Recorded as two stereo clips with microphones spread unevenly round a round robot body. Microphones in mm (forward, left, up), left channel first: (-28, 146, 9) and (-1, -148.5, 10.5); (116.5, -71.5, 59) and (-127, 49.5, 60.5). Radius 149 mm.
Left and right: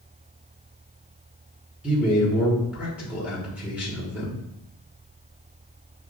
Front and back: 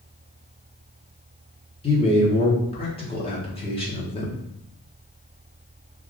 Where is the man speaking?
5° right, 1.2 m.